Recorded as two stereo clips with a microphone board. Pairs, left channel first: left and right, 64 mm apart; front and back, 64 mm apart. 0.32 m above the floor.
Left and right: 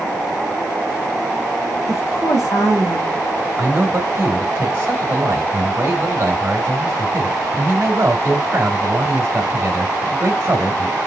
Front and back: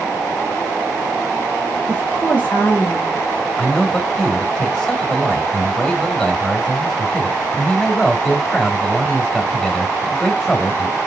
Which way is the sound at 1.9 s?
60° left.